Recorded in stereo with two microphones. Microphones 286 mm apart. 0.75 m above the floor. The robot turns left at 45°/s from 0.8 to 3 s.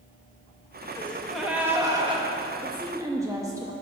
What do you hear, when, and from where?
0.9 s a gasp: 15° left, 1.2 m; by 2.3 s 45° right, 1.2 m
2.6 s a woman speaking: 20° right (ahead or behind), 0.9 m; by 3.7 s 10° right (ahead or behind), 0.9 m